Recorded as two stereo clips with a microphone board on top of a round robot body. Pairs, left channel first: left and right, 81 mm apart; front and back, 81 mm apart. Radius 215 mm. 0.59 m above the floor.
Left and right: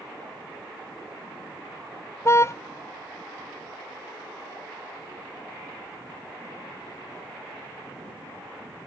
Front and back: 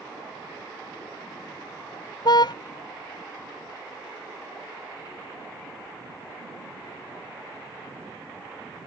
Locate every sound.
2.2 s a car horn: 35° left